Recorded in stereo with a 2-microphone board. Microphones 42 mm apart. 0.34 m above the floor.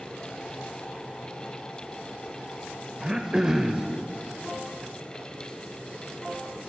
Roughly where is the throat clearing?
Centre.